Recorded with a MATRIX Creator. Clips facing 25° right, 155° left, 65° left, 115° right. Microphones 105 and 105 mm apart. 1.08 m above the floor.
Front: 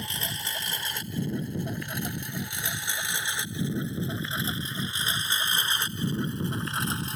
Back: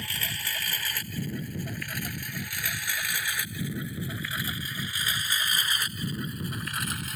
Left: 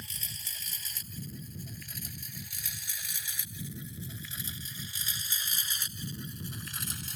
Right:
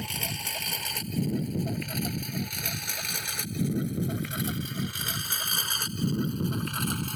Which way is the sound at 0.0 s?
90° right.